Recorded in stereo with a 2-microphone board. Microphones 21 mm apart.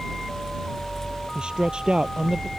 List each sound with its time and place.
1.4 s a man speaking: 40° right (ahead or behind)